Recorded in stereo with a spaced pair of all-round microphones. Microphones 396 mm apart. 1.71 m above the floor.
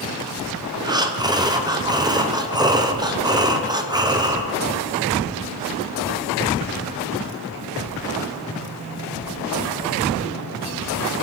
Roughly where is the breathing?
Centre.